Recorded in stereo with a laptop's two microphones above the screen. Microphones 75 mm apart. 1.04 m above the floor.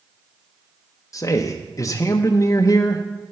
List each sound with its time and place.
1.1 s a man speaking: 45° left (ahead or behind), 0.6 m